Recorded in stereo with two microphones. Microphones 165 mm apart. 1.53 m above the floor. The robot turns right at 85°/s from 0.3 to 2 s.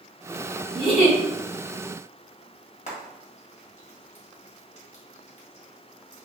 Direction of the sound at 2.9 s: 45° left (ahead or behind).